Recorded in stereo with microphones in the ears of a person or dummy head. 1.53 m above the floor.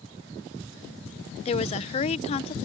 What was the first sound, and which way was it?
A woman speaking, 30° left (ahead or behind).